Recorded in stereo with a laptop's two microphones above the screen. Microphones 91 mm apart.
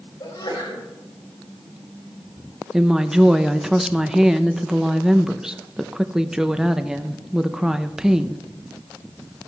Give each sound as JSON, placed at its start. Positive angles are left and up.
{"t": 0.2, "sound": "a sneeze", "side_deg": 50, "distance_m": 3.5}
{"t": 2.7, "sound": "a woman speaking", "side_deg": -5, "distance_m": 0.6}